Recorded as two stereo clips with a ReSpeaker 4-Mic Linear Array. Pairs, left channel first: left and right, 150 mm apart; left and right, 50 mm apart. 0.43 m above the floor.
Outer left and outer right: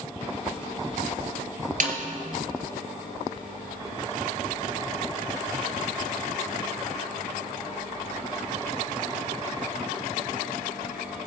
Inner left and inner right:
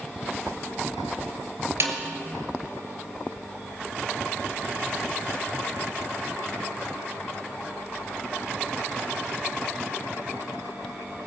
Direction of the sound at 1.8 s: 60° right (ahead or behind).